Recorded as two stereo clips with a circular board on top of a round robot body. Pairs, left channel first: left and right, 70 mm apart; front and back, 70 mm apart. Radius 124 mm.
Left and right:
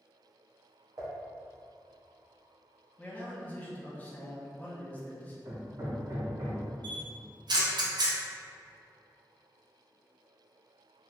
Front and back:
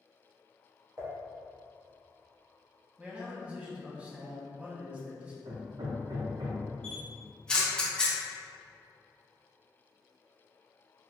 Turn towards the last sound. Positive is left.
turn(degrees=-80)